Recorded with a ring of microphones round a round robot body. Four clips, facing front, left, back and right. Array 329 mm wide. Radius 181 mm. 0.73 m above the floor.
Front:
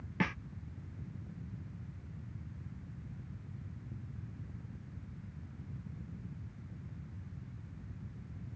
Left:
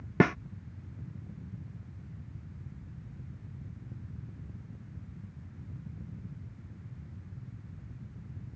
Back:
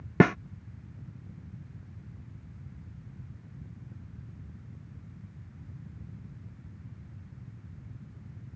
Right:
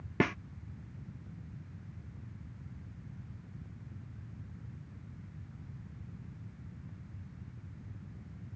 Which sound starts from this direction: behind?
A snare drum, at 0.2 s.